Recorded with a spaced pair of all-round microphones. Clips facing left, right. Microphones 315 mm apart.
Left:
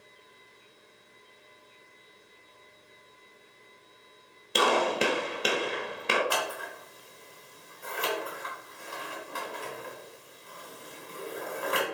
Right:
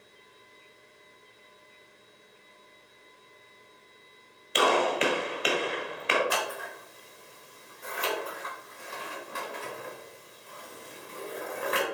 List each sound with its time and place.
4.5 s a gunshot: 50° left (ahead or behind), 1.5 m
6.3 s scissors: 30° right (ahead or behind), 4 m